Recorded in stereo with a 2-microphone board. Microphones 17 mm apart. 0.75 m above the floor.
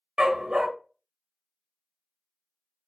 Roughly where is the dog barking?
Right.